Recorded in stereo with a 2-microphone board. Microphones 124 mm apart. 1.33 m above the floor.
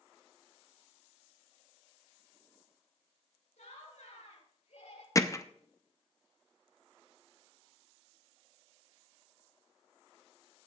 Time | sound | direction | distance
3.6 | laughter | 80° left | 3 m
5.2 | hammering | 25° left (ahead or behind) | 0.5 m